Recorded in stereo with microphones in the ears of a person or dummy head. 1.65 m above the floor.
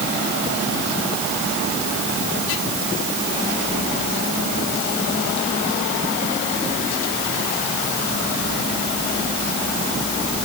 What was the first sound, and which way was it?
Only background noise.